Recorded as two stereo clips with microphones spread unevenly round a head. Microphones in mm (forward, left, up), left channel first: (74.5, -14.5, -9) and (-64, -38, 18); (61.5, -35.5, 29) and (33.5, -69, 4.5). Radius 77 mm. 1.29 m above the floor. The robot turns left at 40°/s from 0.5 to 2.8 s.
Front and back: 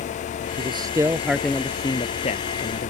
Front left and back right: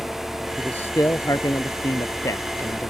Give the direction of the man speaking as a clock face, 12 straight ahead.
8 o'clock.